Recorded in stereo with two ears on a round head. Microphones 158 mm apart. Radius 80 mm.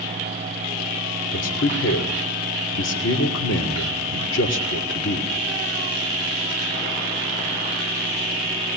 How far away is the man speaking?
About 3 m.